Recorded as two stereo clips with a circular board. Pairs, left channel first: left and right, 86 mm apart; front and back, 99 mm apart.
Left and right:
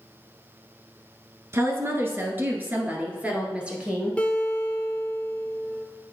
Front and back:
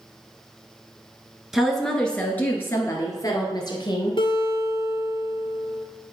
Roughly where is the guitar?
Ahead.